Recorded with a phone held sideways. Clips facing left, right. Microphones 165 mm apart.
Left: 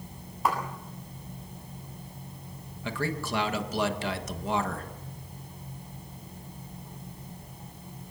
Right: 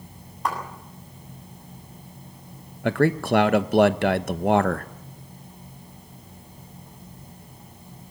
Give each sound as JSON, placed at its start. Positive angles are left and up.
{"t": 0.5, "sound": "a clap", "side_deg": 5, "distance_m": 7.0}
{"t": 2.8, "sound": "a man speaking", "side_deg": -75, "distance_m": 1.1}